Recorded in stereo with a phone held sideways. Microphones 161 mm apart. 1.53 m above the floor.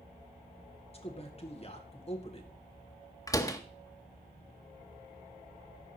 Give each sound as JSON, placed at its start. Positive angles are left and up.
{"t": 0.9, "sound": "a man speaking", "side_deg": 40, "distance_m": 1.5}
{"t": 3.3, "sound": "a door slam", "side_deg": 20, "distance_m": 0.8}